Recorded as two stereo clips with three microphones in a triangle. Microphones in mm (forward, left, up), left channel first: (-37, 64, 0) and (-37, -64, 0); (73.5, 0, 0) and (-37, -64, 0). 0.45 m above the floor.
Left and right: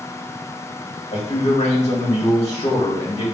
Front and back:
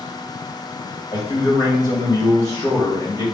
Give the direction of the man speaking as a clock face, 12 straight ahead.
9 o'clock.